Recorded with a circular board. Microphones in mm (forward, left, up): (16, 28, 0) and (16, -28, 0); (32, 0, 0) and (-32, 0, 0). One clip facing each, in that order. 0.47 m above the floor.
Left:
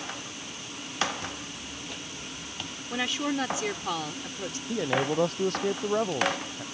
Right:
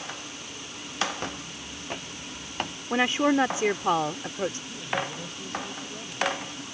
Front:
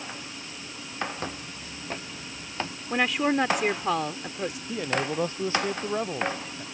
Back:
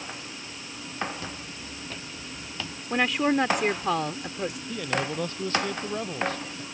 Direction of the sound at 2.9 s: 85° right.